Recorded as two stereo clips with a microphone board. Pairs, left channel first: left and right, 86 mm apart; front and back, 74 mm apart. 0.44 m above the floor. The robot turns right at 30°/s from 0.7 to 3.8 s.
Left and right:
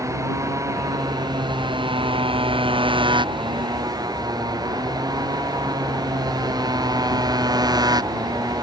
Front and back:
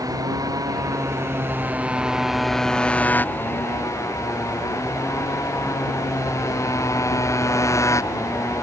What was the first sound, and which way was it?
A motorcycle, 145° right.